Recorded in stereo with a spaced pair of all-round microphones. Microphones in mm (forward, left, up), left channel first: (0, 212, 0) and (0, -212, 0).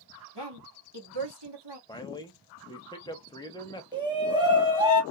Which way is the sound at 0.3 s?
70° right (ahead or behind).